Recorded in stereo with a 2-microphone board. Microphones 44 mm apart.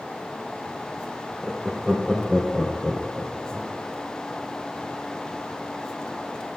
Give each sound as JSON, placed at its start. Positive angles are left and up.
{"t": 1.4, "sound": "laughter", "side_deg": 5, "distance_m": 3.5}